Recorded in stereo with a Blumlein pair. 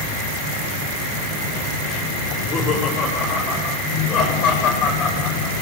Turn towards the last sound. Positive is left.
turn(degrees=30)